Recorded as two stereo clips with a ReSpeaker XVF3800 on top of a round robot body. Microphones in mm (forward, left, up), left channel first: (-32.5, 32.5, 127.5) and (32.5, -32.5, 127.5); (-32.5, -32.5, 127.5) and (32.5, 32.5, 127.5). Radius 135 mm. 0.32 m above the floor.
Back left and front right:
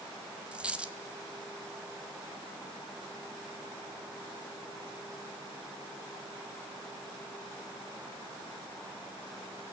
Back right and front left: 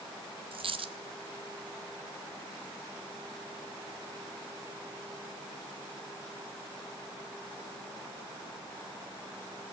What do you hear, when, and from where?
0.5 s a dropped coin: 35° left, 1.5 m